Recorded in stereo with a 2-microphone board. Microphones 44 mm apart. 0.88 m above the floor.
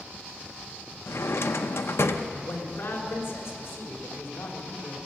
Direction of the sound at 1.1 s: 75° left (ahead or behind).